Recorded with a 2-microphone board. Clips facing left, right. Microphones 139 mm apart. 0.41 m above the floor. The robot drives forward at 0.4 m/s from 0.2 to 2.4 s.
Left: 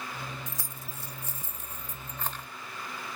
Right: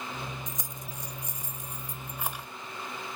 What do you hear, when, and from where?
0.5 s keys jangling: 20° right (ahead or behind), 0.7 m; by 2.5 s 10° right (ahead or behind), 1.2 m